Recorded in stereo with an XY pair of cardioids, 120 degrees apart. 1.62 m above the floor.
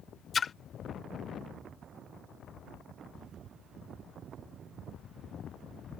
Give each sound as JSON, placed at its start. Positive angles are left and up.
{"t": 0.3, "sound": "a splash", "azimuth_deg": 30}